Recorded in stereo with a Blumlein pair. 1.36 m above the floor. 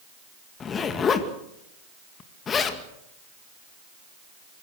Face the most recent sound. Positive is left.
turn(degrees=20)